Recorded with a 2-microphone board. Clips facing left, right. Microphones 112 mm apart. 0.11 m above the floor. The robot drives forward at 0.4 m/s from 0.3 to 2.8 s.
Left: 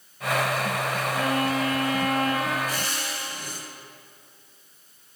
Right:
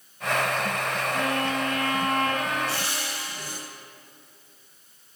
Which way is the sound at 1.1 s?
Centre (ahead or behind).